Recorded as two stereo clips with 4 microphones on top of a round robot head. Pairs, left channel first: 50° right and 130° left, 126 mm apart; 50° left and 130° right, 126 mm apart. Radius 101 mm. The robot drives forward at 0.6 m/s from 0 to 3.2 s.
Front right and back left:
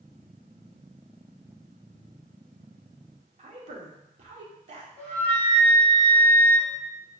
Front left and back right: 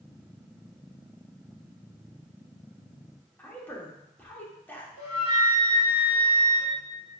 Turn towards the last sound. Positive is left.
turn(degrees=25)